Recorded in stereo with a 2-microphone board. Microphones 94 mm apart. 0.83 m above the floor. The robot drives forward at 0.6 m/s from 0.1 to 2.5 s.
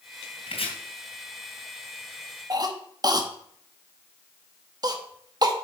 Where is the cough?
45° right (ahead or behind), 1.3 m.